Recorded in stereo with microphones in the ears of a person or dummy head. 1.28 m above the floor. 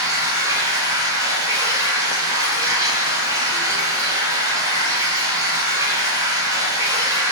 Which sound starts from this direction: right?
Running water, at 0.0 s.